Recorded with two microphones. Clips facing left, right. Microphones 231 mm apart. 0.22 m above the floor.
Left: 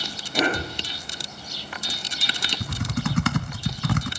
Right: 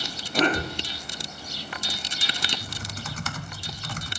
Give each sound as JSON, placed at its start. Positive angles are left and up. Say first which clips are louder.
{"t": 0.3, "sound": "a cough", "louder": "right 1 dB", "side_deg": 10, "distance_m": 2.0}
{"t": 2.6, "sound": "typing on a keyboard", "louder": "left 11 dB", "side_deg": 65, "distance_m": 0.5}